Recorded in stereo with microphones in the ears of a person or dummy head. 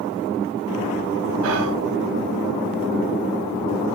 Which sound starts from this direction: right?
Whispering, at 1.4 s.